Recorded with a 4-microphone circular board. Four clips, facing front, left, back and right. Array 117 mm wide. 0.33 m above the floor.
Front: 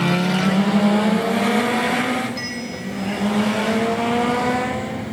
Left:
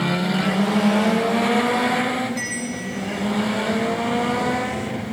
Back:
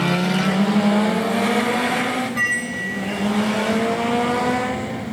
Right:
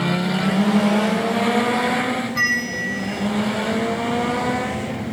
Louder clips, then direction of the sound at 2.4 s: Right 4 dB, back 4 dB; 115° right.